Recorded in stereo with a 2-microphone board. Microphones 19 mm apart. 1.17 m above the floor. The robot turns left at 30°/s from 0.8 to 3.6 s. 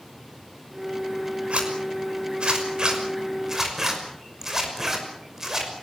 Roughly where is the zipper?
Right.